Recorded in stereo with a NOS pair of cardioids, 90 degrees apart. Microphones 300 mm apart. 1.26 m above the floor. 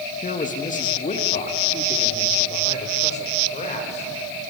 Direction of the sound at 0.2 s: 25° left.